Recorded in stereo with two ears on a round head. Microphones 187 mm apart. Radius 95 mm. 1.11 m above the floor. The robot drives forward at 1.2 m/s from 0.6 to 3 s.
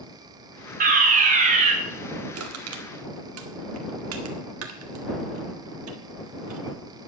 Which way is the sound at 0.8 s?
40° right (ahead or behind).